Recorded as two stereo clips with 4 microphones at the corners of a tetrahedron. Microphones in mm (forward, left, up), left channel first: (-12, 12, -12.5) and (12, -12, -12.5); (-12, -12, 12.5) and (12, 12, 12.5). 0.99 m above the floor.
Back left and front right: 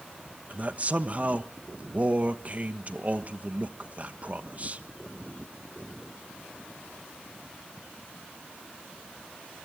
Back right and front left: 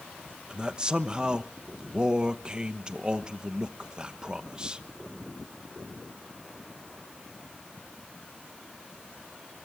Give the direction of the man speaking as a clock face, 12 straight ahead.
12 o'clock.